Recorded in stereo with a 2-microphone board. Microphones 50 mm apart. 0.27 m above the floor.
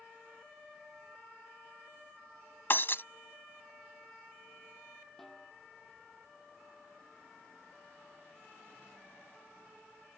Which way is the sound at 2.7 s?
50° left (ahead or behind).